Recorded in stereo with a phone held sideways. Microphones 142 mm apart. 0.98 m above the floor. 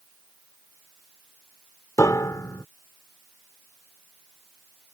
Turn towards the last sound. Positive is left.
turn(degrees=25)  # may be behind; listen again after turning